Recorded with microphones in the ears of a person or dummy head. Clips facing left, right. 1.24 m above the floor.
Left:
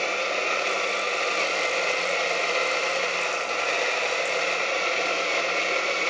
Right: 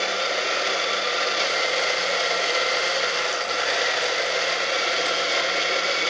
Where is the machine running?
10° right (ahead or behind), 1.1 m.